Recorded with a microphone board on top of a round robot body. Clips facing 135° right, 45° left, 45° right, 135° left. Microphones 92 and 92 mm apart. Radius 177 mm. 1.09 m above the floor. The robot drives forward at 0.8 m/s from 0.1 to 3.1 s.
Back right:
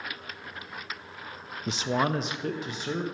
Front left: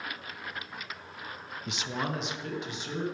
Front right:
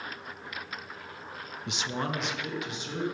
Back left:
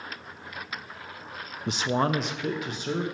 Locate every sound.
1.7 s a man speaking: 175° left, 0.5 m; by 3.0 s straight behind, 1.5 m